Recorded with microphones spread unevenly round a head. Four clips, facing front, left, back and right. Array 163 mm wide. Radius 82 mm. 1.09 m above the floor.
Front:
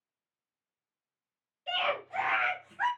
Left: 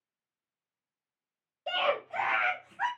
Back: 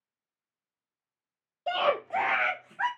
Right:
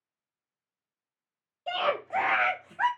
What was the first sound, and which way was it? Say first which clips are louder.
A scream: right 1 dB, back 6 dB; 175° left.